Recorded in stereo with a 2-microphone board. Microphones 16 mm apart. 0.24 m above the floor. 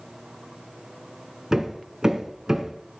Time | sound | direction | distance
1.5 | hammering | 35° right (ahead or behind) | 1.5 m